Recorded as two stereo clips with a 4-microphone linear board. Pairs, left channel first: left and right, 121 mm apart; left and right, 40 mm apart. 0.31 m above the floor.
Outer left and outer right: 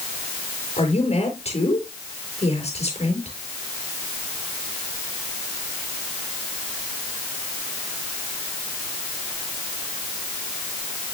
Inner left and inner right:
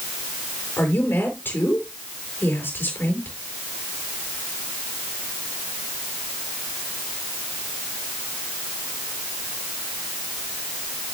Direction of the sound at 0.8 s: 65° left (ahead or behind).